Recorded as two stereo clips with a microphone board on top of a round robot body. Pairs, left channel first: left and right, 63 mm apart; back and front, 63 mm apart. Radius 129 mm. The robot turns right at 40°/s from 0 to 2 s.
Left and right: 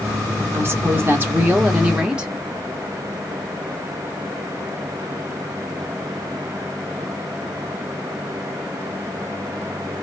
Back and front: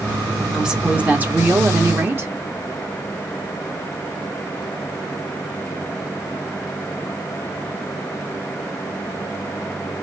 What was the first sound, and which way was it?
A woman speaking, 80° right.